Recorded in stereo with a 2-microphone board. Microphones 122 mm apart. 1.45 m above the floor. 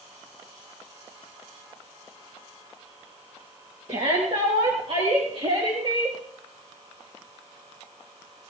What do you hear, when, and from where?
3.9 s a shout: 60° right (ahead or behind), 2.5 m; by 6.2 s 55° right (ahead or behind), 4 m